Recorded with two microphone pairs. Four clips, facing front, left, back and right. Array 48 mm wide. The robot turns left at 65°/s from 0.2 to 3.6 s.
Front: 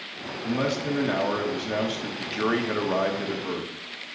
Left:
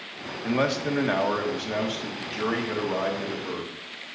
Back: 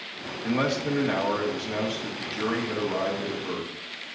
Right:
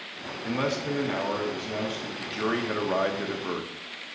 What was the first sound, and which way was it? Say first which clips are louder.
A man speaking: left 3 dB, back 1 dB; 120° left.